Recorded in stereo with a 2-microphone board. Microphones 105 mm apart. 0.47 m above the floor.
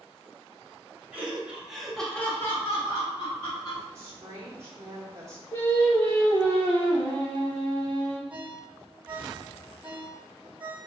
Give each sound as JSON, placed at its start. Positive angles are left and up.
{"t": 1.1, "sound": "laughter", "side_deg": -15, "distance_m": 1.8}
{"t": 4.0, "sound": "a woman speaking", "side_deg": -25, "distance_m": 0.8}
{"t": 5.5, "sound": "singing", "side_deg": 20, "distance_m": 1.3}
{"t": 8.3, "sound": "a ringtone", "side_deg": -10, "distance_m": 1.2}